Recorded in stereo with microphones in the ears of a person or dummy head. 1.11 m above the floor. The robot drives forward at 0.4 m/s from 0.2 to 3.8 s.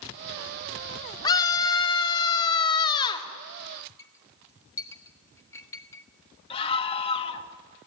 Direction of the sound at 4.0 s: 10° left (ahead or behind).